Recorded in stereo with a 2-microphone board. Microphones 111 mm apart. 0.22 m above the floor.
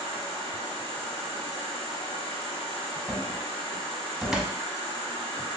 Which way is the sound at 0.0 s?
50° left (ahead or behind).